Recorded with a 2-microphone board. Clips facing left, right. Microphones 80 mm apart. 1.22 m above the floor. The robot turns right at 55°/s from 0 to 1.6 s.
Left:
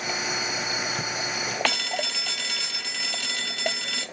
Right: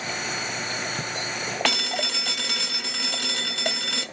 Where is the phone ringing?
75° right (ahead or behind), 1.0 m.